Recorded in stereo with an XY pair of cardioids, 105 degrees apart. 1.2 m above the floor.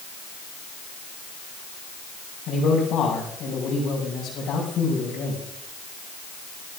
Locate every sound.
2.5 s a man speaking: 65° left, 5.5 m